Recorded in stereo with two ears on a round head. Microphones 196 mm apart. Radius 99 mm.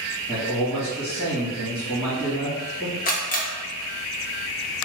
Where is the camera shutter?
40° left (ahead or behind), 0.8 m.